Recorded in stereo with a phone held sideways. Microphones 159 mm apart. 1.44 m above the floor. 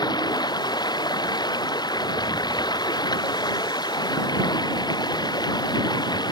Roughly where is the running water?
Left.